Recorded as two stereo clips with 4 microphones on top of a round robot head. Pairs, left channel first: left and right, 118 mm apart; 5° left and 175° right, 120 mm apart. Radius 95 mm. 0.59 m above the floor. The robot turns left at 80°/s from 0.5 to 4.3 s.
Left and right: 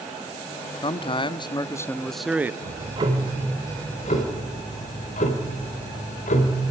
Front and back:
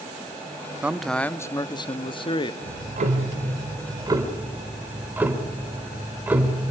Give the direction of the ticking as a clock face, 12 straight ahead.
4 o'clock.